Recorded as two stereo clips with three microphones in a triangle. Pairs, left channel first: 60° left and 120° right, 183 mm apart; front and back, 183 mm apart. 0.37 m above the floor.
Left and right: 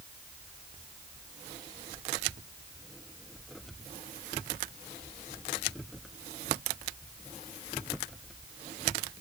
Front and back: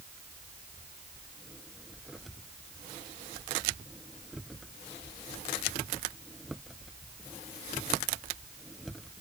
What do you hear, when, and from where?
Only background noise.